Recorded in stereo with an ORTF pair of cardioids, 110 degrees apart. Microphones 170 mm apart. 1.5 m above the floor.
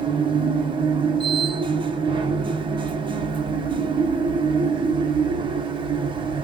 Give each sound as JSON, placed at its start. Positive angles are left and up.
{"t": 0.0, "sound": "a machine running", "azimuth_deg": -30, "distance_m": 1.2}